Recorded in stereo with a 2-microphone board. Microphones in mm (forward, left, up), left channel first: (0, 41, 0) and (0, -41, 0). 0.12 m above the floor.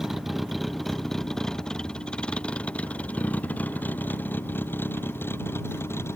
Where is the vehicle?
5° right (ahead or behind); by 6.2 s 30° left (ahead or behind).